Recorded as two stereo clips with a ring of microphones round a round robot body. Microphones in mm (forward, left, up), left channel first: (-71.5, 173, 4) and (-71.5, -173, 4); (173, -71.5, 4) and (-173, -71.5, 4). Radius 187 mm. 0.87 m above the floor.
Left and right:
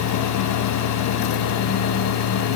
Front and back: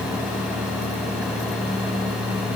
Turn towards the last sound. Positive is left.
No sound to turn to.